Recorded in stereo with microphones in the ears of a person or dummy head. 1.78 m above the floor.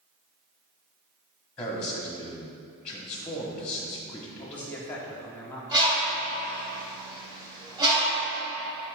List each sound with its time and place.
1.6 s a man speaking: 10° left (ahead or behind), 1.1 m
4.4 s a man speaking: 15° left (ahead or behind), 1.2 m
5.7 s a bird: 25° right (ahead or behind), 1.5 m